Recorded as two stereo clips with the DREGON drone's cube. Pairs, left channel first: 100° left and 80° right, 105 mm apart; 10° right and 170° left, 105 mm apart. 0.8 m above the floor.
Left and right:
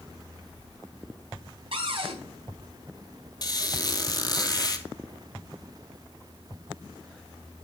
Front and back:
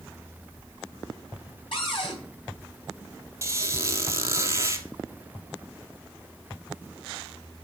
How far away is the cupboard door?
About 3.5 m.